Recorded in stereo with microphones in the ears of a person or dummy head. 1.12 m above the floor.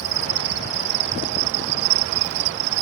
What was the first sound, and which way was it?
An insect, 60° right (ahead or behind).